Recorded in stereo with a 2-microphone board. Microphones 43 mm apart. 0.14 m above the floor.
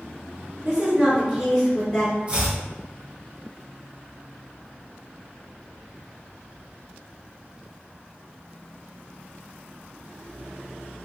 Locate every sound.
0.7 s a woman speaking: 15° right (ahead or behind), 2.0 m; by 2.2 s 15° left (ahead or behind), 1.8 m
2.3 s chopping: 25° right (ahead or behind), 1.2 m